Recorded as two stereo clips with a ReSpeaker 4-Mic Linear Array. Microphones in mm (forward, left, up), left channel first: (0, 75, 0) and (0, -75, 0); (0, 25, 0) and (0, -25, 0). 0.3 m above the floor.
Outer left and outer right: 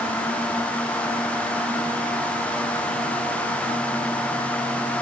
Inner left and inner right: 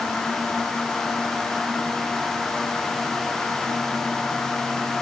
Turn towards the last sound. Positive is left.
No sound to turn to.